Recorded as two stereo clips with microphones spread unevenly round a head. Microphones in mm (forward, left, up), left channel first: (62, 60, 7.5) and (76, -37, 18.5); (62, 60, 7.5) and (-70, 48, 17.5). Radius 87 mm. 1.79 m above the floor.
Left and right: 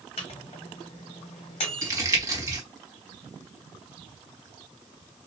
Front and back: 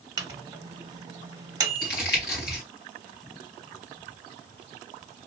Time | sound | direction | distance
0.2 | a microwave | 135° left | 1.0 m
1.8 | crumpling | 25° right | 2 m